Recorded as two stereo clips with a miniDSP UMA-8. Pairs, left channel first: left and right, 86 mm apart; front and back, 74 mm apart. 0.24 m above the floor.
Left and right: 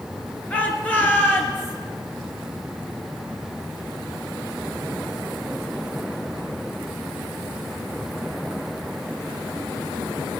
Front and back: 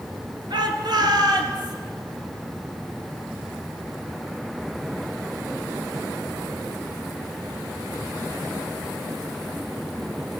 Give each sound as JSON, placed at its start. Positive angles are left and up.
{"t": 0.5, "sound": "a shout", "azimuth_deg": 165, "distance_m": 4.5}